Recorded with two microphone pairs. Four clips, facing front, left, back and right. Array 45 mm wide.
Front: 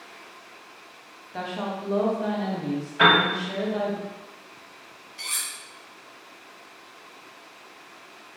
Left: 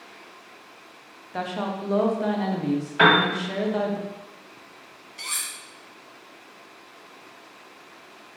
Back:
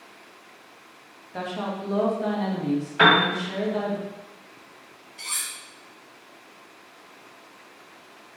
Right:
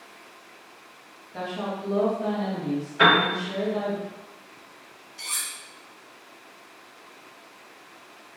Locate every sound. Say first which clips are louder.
1.3 s a woman speaking: left 2 dB, back 1 dB; 85° left, 0.7 m
3.0 s a piano: left 1 dB, even; 120° left, 1.5 m
5.2 s cutlery clinking: left 1 dB, front 1 dB; 80° left, 0.9 m